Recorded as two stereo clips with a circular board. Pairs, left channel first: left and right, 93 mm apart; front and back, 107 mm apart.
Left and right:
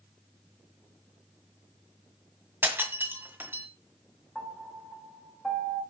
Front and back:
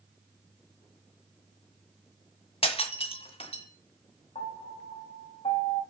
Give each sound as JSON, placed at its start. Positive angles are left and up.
{"t": 2.6, "sound": "breaking glass", "azimuth_deg": -25, "distance_m": 1.9}
{"t": 4.3, "sound": "a piano", "azimuth_deg": 5, "distance_m": 3.5}